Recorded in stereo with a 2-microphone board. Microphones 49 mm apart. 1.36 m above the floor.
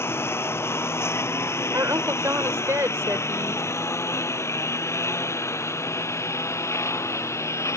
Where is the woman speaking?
75° right (ahead or behind).